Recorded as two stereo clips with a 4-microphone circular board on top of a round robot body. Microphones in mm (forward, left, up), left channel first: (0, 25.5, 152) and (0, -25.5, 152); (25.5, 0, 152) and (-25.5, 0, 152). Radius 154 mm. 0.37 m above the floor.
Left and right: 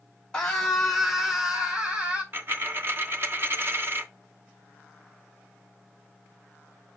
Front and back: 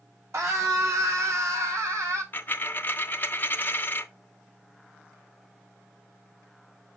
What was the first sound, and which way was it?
A scream, 165° left.